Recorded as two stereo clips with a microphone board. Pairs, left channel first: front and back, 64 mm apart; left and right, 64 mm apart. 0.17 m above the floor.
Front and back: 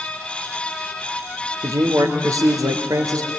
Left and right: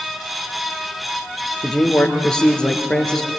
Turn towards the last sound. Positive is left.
turn(degrees=165)